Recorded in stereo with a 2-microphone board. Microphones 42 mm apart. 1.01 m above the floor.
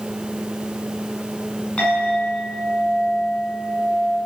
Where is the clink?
30° left (ahead or behind), 7.5 m.